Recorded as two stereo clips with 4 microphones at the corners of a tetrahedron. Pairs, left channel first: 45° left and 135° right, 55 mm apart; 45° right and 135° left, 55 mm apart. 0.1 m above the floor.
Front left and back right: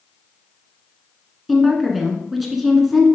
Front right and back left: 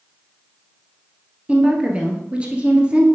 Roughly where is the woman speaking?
Behind left.